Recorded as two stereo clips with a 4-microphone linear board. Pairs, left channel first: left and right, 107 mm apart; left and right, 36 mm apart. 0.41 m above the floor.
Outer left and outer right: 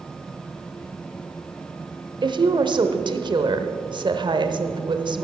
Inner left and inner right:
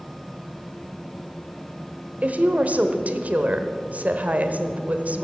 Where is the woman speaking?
45° right (ahead or behind), 1.1 m.